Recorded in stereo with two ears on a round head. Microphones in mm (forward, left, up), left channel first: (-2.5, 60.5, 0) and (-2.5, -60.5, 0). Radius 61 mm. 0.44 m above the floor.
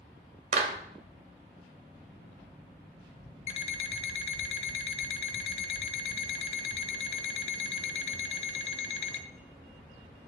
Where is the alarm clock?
45° left (ahead or behind), 1.1 m.